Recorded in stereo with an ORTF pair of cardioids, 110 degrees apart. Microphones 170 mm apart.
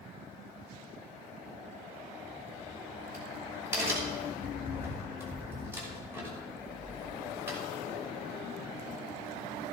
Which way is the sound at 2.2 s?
15° right.